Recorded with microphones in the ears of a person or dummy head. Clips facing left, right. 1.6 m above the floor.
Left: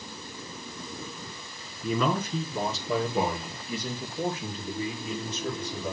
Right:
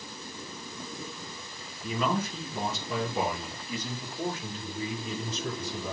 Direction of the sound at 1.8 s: 70° left (ahead or behind).